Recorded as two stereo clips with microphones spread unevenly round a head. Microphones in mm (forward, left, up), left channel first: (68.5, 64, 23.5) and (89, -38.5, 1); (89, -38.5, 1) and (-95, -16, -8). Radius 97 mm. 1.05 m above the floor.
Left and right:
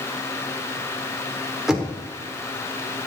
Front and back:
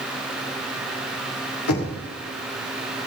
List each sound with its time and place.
1.7 s knocking: 10° left, 2.5 m